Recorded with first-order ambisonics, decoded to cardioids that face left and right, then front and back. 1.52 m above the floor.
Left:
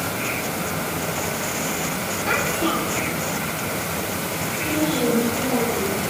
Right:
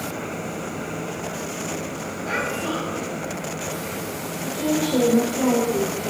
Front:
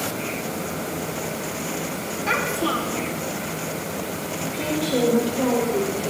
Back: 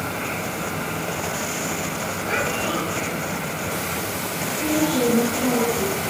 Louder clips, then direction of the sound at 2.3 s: Left 3 dB, front 2 dB; 35° left.